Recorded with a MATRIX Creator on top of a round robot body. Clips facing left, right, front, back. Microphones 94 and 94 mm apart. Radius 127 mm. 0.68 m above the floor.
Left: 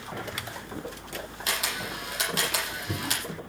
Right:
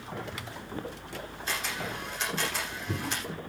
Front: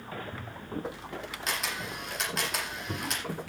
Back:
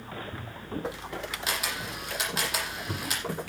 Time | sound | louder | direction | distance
1.5 | a camera shutter | left 1 dB, front 1 dB | 95° left | 8 m